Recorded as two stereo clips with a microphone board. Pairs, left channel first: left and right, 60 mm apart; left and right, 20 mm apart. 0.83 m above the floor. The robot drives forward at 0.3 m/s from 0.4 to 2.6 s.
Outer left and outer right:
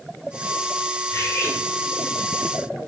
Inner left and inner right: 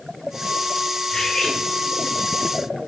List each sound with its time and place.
1.1 s cutlery clinking: 45° left (ahead or behind), 7 m